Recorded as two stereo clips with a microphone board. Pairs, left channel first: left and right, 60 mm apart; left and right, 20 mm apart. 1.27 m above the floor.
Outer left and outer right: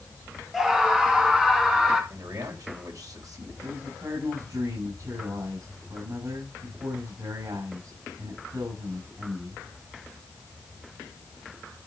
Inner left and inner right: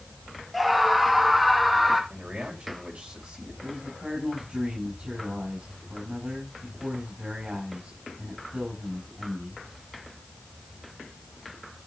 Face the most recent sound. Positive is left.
turn(degrees=-75)  # may be behind; listen again after turning